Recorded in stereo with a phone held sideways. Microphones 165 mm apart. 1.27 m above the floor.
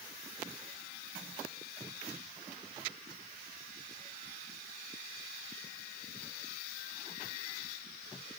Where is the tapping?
No tapping in this recording.